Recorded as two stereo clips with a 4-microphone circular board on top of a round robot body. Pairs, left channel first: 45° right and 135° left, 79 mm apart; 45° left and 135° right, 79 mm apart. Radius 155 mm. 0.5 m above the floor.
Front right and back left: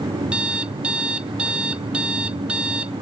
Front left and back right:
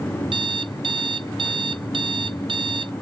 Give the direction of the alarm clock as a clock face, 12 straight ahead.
5 o'clock.